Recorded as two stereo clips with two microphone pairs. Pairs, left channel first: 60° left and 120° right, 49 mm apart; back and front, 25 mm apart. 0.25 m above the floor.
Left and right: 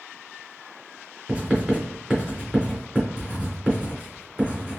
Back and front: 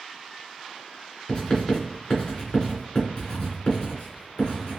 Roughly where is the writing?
Behind.